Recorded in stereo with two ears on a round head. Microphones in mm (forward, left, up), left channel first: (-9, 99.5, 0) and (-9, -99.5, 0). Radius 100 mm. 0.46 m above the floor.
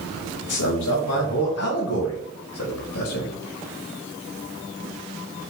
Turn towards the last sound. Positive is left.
turn(degrees=65)  # may be behind; listen again after turning